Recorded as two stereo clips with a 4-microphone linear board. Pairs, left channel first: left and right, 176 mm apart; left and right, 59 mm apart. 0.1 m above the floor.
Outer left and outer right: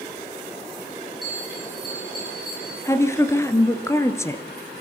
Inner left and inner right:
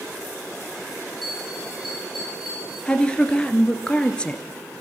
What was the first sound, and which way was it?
A bell, centre (ahead or behind).